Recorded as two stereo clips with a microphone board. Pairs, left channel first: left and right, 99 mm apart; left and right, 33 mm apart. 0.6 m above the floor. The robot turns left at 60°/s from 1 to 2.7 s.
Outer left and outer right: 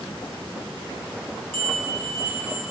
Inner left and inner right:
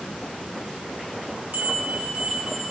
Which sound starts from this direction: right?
A bell, at 1.5 s.